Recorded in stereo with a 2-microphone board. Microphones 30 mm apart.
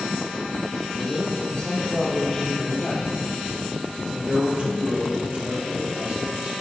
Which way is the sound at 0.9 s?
50° left (ahead or behind).